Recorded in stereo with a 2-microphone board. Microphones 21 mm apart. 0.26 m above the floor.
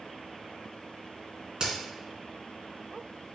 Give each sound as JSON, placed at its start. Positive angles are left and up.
{"t": 1.6, "sound": "a crack", "side_deg": -40, "distance_m": 1.0}